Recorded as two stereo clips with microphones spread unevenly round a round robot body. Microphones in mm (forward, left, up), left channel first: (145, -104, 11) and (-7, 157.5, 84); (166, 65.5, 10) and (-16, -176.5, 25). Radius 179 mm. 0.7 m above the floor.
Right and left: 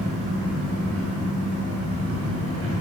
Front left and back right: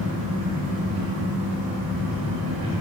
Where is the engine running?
175° left, 1.2 m.